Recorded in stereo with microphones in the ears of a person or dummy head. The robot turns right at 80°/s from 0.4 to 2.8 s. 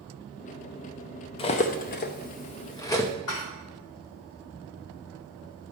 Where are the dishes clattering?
80° left, 1.8 m.